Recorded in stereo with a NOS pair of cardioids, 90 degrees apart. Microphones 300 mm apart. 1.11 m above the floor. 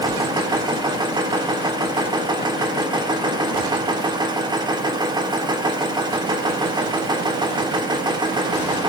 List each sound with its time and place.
0.0 s a machine running: 15° right, 1.9 m